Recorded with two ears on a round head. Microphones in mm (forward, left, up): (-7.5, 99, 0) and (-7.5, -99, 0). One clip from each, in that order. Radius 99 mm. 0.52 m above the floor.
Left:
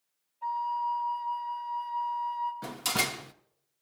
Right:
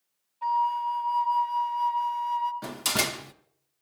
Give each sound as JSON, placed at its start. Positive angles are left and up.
{"t": 0.4, "sound": "a flute", "side_deg": -50, "distance_m": 1.2}
{"t": 2.6, "sound": "a door slam", "side_deg": -5, "distance_m": 0.6}